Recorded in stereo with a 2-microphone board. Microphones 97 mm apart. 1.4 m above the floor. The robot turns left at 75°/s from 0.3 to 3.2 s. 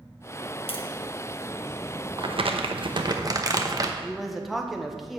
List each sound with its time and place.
0.7 s tapping: 75° left (ahead or behind), 1.0 m; by 0.9 s 60° left (ahead or behind), 1.0 m
2.2 s crumpling: 60° right, 0.9 m; by 3.9 s 135° right, 0.9 m
4.0 s a man speaking: centre (ahead or behind), 1.2 m